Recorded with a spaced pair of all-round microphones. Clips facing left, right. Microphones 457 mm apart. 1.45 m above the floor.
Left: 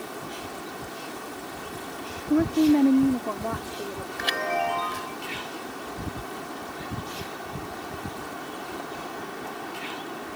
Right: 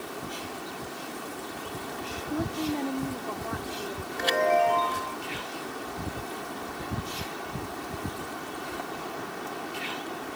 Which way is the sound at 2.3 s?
80° left.